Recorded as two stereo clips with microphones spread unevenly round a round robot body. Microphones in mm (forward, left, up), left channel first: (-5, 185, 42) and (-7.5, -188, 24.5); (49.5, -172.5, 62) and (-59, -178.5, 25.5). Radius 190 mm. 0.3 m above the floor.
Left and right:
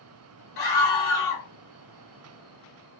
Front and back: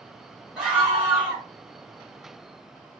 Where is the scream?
135° left, 1.3 m.